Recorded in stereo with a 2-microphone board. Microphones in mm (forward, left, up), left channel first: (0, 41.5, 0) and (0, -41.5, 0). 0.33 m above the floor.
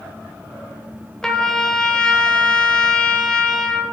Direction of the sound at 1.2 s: 10° left (ahead or behind).